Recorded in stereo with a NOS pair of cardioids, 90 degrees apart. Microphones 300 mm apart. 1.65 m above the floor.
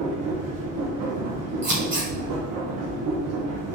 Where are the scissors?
35° right, 2 m.